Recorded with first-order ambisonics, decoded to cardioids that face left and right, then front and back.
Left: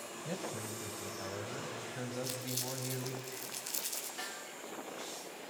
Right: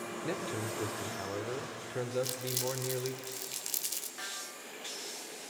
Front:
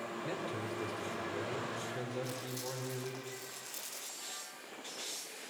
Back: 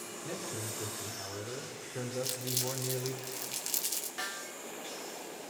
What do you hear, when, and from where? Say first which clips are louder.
0.2 s a man speaking: right 4 dB, back 1 dB; 80° right, 2.5 m; by 3.2 s 105° right, 3.5 m
2.2 s crumpling: right 4 dB, back 5 dB; 140° right, 3.5 m
4.2 s a snare drum: right 2 dB, back 7 dB; 175° right, 4.5 m